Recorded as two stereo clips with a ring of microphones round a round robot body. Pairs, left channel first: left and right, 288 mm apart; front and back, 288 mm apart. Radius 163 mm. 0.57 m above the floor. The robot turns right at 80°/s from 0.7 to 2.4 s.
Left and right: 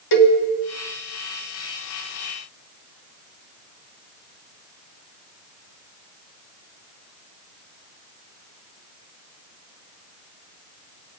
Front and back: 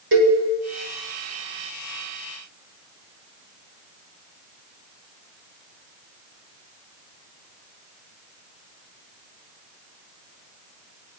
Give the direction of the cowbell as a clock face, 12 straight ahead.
8 o'clock.